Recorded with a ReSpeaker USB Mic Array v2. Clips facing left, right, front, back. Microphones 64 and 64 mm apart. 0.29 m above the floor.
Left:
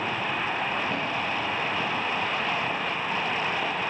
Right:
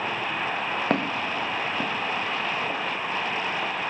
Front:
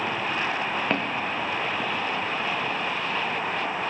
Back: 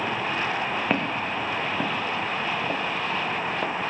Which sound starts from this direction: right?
Footsteps, at 0.9 s.